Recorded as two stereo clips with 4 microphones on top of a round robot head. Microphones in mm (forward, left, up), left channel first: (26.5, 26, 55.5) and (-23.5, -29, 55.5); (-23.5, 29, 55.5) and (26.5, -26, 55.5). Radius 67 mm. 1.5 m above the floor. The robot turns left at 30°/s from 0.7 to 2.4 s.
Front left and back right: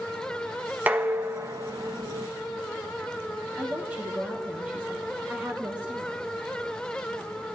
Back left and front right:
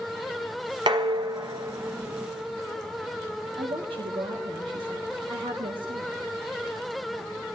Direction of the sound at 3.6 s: 60° right.